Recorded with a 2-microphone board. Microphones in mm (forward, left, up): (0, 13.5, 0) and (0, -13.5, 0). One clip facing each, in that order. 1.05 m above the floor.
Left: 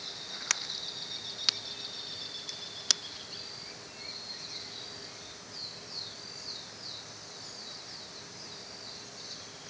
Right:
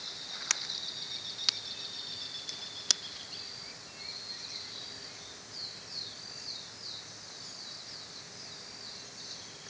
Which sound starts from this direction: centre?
A crack, at 0.5 s.